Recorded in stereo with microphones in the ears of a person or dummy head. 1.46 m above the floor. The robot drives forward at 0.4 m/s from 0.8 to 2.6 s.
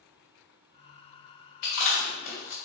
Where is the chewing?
55° left (ahead or behind), 2 m; by 2.6 s 50° left (ahead or behind), 2.5 m.